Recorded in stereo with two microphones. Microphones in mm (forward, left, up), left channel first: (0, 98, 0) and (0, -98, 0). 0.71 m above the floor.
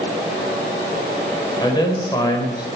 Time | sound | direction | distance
1.6 | a man speaking | 20° left (ahead or behind) | 3.5 m